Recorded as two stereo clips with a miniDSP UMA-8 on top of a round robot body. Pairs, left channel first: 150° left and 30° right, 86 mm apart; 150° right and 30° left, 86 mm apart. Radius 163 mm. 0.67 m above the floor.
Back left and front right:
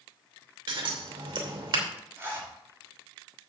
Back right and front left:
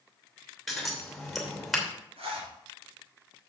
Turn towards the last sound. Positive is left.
turn(degrees=40)